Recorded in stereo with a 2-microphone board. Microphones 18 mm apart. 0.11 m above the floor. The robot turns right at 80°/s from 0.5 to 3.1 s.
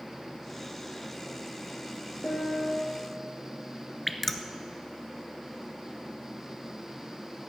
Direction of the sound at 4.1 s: 5° left (ahead or behind).